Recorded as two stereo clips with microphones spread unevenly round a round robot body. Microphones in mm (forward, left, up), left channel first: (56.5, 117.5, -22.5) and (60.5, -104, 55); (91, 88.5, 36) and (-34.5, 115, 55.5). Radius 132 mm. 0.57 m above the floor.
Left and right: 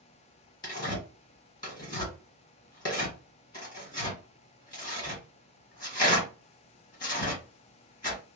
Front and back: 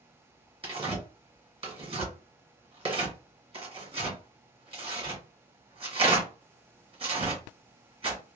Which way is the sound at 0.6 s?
135° left.